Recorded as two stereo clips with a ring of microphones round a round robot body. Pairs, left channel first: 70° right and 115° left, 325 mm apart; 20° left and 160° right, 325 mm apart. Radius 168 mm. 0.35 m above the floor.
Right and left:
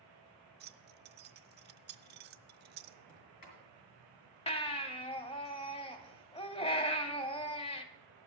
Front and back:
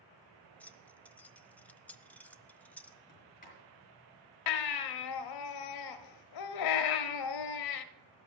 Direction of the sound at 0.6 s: 105° left.